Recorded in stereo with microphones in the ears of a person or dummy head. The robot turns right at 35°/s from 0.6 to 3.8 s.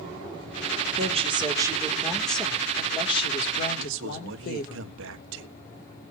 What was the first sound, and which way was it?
A woman speaking, 40° right.